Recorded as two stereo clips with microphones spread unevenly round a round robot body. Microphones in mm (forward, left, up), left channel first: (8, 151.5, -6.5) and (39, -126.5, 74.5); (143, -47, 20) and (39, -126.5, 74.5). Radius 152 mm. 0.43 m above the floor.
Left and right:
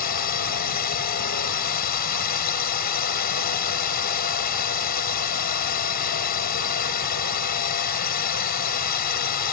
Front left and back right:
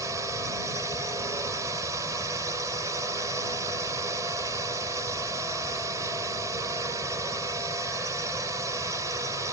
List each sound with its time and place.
0.0 s a drone: 135° left